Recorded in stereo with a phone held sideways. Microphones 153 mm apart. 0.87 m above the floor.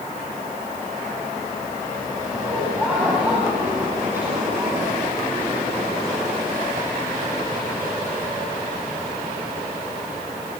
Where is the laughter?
5° right (ahead or behind), 7.5 m; by 4.9 s 15° right (ahead or behind), 8 m.